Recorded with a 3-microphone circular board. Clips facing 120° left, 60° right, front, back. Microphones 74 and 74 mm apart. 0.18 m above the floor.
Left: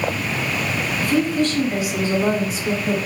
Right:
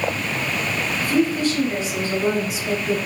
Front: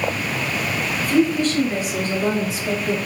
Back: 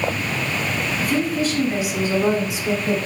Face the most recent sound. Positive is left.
turn(degrees=115)